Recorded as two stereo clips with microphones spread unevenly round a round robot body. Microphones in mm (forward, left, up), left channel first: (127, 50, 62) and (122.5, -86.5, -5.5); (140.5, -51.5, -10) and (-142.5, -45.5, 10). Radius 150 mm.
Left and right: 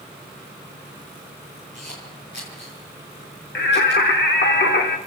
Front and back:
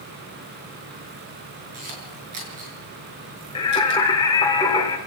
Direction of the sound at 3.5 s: 75° left.